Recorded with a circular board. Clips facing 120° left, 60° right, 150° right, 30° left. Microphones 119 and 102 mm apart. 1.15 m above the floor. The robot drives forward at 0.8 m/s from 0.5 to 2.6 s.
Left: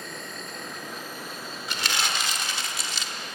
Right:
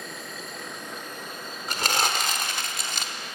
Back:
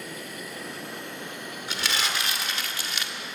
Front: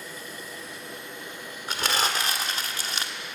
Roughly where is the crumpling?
Ahead.